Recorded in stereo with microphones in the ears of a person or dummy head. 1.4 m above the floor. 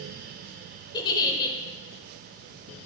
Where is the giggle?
25° left (ahead or behind), 0.8 m.